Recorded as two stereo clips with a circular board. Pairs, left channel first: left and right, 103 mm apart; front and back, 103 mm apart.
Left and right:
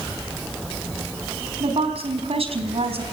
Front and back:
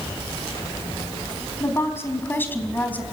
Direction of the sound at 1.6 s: 65° right.